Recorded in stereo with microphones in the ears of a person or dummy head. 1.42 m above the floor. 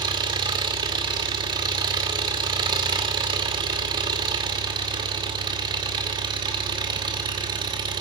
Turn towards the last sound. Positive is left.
turn(degrees=-25)  # may be behind; listen again after turning